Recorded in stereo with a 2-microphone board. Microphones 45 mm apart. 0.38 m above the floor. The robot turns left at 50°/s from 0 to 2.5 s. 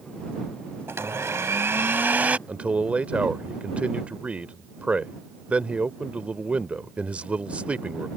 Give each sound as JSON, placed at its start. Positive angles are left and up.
{"t": 0.9, "sound": "a blender", "azimuth_deg": -70}
{"t": 2.5, "sound": "a man speaking", "side_deg": -30}